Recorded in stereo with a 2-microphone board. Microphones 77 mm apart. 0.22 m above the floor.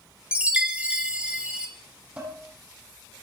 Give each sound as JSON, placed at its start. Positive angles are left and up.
{"t": 0.3, "sound": "a chime", "side_deg": -10, "distance_m": 1.2}
{"t": 2.2, "sound": "dishes clattering", "side_deg": -15, "distance_m": 6.5}